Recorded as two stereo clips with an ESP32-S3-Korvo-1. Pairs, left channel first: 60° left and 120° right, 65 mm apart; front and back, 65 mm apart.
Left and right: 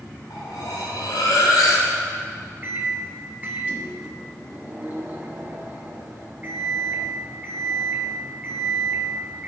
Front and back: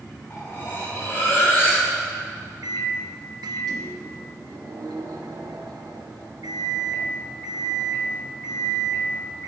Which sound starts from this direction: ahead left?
Cutlery clinking, at 0.3 s.